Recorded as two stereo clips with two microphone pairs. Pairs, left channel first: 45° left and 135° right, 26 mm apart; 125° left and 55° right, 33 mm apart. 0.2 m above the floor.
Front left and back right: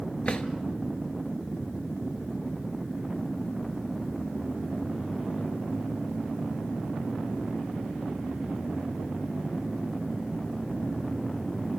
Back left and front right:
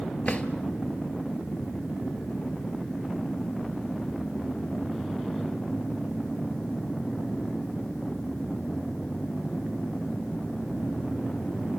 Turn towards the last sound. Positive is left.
turn(degrees=75)